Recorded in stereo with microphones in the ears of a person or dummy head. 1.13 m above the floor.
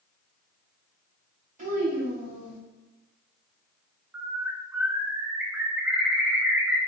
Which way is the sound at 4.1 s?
5° right (ahead or behind).